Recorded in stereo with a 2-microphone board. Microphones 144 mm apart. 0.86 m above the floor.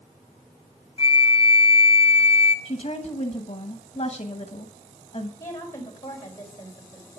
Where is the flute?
35° left (ahead or behind), 1.3 m.